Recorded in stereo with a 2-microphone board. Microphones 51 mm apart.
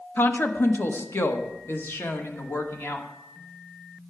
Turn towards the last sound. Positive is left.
turn(degrees=55)  # may be behind; listen again after turning